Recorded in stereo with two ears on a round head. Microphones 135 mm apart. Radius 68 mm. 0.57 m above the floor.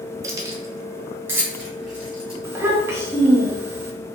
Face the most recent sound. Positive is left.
turn(degrees=-20)  # may be behind; listen again after turning